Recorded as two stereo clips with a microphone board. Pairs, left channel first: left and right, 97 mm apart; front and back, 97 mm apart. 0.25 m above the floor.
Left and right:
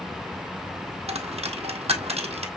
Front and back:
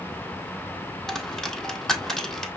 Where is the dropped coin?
85° right, 1.4 m.